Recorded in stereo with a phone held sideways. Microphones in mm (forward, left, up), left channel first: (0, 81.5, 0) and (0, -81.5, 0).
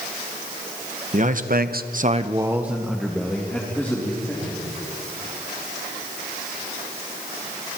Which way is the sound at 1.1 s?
50° right (ahead or behind).